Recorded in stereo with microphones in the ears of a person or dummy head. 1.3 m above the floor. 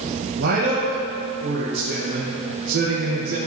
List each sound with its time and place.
0.4 s a man speaking: 55° right (ahead or behind), 1.4 m